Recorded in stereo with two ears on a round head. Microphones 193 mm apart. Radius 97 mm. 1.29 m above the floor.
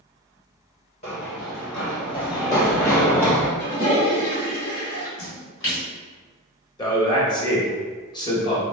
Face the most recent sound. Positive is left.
turn(degrees=20)  # may be behind; listen again after turning